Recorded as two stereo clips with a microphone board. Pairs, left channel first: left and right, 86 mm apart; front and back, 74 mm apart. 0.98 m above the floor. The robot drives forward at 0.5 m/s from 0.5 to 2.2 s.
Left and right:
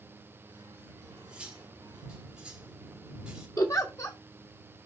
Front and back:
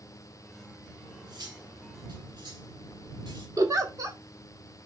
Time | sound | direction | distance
1.0 | cutlery clinking | 165° right | 2.5 m
3.6 | a giggle | 140° left | 1.6 m